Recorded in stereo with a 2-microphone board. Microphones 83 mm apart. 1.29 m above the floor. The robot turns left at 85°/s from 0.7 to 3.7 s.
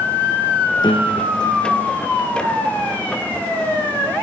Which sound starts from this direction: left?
A piano, at 0.8 s.